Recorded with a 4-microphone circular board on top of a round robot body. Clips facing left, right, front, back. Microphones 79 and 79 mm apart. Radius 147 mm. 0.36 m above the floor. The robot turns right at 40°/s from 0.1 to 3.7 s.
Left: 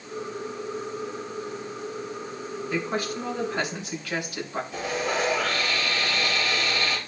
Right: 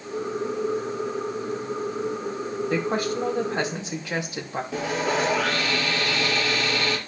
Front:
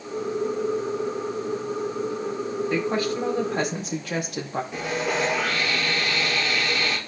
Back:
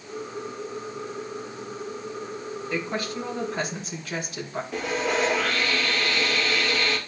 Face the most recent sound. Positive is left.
turn(degrees=-85)